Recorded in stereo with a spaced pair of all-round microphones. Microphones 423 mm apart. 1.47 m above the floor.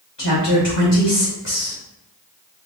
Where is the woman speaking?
70° left (ahead or behind), 2.5 m.